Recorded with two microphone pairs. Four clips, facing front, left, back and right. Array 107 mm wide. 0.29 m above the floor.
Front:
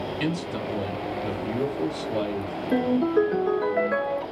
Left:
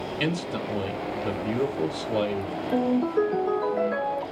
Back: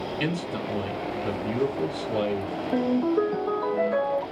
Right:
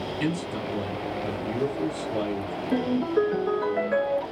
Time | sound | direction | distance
0.2 | a man speaking | 85° left | 1.0 m
2.7 | a ringtone | 20° right | 1.7 m